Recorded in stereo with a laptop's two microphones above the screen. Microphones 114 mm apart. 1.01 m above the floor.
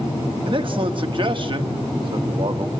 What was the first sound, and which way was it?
A man speaking, 45° right (ahead or behind).